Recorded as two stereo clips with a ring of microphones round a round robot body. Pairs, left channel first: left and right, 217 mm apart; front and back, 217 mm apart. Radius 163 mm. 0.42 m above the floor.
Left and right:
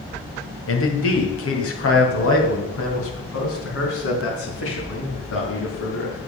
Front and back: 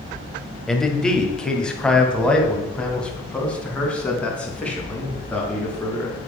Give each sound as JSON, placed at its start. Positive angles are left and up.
{"t": 0.7, "sound": "a man speaking", "azimuth_deg": 90, "distance_m": 2.0}